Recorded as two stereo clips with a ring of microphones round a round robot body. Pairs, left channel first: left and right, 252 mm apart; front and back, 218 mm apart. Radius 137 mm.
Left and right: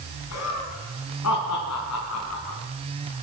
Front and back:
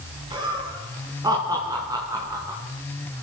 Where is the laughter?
110° left, 4 m; by 2.6 s 105° left, 5 m.